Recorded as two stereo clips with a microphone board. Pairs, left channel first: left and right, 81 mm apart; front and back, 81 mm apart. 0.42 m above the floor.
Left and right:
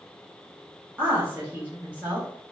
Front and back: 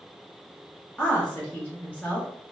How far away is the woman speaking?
About 1.0 m.